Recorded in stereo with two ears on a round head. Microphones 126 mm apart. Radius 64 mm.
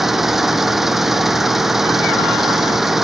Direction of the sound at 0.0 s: Centre (ahead or behind).